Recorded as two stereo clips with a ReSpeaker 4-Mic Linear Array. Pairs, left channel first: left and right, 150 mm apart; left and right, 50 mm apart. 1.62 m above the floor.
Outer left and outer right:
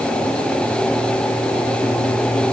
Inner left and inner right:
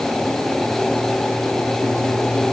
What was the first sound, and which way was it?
Only background noise.